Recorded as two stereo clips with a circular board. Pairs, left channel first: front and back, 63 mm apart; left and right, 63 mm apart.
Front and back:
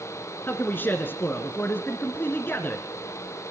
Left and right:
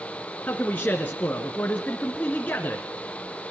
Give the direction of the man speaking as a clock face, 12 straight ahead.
11 o'clock.